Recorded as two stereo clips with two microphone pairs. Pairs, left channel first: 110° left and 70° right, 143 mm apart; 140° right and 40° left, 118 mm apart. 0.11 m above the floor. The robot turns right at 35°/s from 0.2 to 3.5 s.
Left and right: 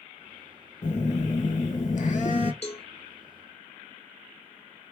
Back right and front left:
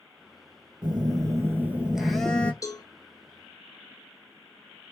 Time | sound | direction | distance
0.8 | a phone buzzing | 80° left | 0.5 m
2.6 | a cowbell | 155° left | 0.6 m